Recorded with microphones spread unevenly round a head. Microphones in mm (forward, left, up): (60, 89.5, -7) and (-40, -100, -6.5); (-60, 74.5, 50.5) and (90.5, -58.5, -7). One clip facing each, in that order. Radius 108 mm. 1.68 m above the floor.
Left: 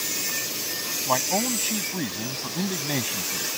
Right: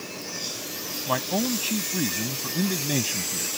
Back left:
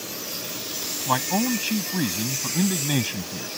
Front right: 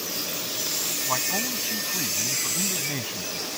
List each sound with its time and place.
1.1 s a man speaking: 165° left